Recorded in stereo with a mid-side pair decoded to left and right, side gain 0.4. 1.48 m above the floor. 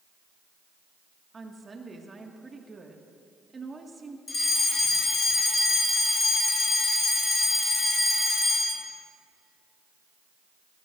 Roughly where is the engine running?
I don't hear an engine running.